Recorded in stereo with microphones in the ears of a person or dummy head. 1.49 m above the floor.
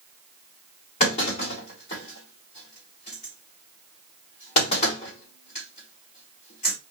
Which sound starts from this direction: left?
A clunk, at 1.0 s.